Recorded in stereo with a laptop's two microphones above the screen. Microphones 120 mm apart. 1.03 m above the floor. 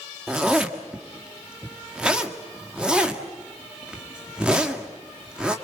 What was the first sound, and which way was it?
A zipper, 5° right (ahead or behind).